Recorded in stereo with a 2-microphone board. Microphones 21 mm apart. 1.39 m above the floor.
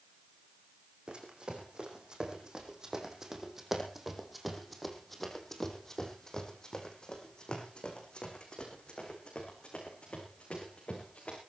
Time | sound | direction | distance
1.1 | running footsteps | 45° right (ahead or behind) | 4.5 m